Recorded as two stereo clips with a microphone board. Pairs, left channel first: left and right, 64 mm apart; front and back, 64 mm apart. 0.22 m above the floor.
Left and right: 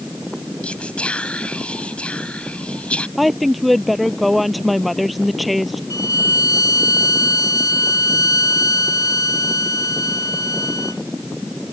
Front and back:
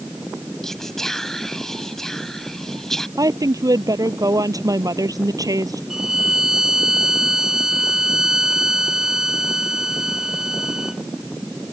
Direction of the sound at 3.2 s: Straight behind.